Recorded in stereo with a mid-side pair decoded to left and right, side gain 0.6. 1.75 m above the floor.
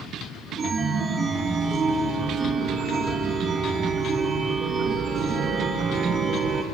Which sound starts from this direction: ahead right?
A chime, at 0.6 s.